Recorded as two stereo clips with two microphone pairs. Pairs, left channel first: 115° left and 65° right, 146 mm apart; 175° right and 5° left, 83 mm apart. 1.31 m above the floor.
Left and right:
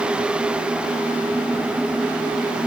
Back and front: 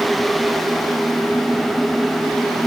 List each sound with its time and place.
Only background noise.